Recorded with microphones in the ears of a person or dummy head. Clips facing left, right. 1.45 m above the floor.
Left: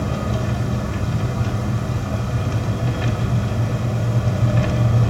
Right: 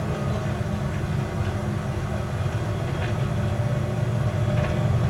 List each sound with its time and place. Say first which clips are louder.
0.0 s an engine running: left 4 dB; 75° left (ahead or behind), 3.5 m